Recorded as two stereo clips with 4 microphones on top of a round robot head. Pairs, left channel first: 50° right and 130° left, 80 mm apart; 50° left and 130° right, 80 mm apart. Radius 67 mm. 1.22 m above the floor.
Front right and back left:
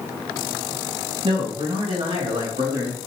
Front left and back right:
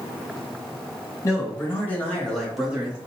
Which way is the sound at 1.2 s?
105° left.